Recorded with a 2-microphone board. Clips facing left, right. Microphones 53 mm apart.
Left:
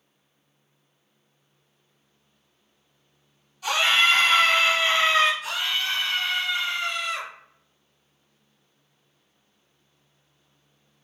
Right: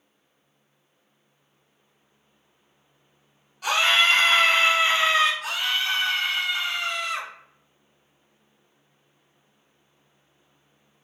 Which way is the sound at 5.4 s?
75° right (ahead or behind).